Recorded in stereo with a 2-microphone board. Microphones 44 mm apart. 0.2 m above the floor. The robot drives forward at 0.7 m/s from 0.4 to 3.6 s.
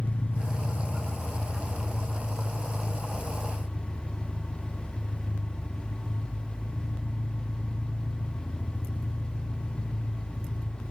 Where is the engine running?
35° left (ahead or behind), 1.2 m; by 10.9 s 10° left (ahead or behind), 3 m.